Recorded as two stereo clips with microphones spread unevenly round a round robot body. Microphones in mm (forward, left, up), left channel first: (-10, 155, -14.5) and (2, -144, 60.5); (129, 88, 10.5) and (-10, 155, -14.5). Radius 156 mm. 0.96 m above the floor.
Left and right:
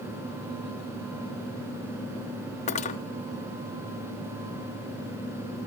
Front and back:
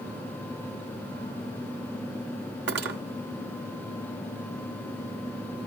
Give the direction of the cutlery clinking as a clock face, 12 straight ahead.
7 o'clock.